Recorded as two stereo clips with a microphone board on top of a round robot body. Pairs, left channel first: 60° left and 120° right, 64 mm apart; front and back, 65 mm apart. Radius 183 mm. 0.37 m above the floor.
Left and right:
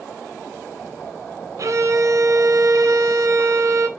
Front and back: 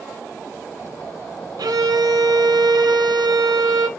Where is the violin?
165° right, 0.6 m.